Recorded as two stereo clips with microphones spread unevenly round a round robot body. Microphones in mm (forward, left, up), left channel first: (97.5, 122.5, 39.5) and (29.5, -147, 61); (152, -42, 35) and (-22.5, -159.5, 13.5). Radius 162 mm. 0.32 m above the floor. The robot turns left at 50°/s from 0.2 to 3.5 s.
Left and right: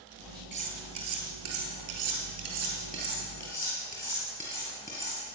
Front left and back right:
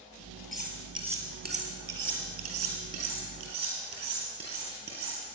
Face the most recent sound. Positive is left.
turn(degrees=155)